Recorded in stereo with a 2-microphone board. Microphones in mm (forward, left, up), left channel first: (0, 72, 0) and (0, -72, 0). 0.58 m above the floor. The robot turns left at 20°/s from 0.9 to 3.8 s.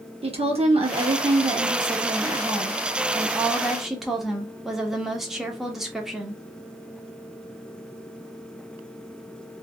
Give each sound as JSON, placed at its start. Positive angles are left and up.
{"t": 0.2, "sound": "a woman speaking", "azimuth_deg": -120, "distance_m": 1.0}